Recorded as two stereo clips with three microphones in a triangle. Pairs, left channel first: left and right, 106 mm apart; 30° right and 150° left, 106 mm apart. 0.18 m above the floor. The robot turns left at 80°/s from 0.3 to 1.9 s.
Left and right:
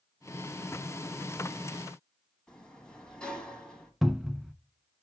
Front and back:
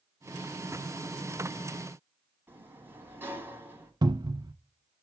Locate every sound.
2.5 s a sliding door: 155° left, 1.5 m
4.0 s a cupboard door: straight behind, 0.6 m